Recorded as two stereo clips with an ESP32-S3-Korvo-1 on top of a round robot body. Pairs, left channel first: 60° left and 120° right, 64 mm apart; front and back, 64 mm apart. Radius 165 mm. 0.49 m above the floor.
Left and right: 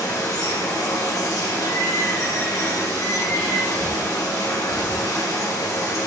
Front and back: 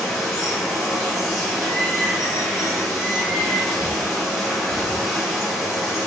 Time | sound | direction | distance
0.0 | running water | 90° left | 1.1 m
3.8 | a bird | 155° right | 1.5 m